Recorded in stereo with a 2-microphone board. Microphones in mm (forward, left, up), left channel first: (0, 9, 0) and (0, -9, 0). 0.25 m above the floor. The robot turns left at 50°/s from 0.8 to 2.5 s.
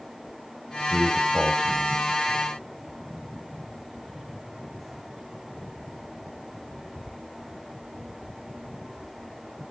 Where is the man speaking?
20° right (ahead or behind), 1.2 m; by 2.5 s centre (ahead or behind), 1.2 m.